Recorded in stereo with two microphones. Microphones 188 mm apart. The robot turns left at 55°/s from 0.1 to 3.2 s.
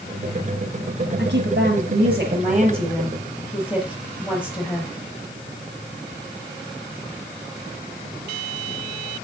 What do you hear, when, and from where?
1.2 s a woman speaking: 65° right, 4.5 m; by 4.9 s 175° right, 4.5 m